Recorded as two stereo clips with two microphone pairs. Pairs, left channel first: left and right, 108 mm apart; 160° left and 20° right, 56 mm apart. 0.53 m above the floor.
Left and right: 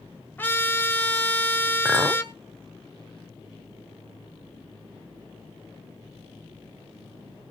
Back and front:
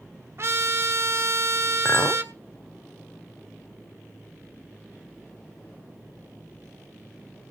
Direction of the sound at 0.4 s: 20° left.